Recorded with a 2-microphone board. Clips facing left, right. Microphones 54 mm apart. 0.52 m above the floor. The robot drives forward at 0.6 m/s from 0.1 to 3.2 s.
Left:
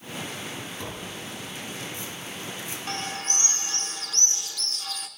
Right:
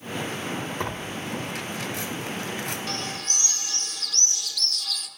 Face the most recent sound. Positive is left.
turn(degrees=30)  # may be behind; listen again after turning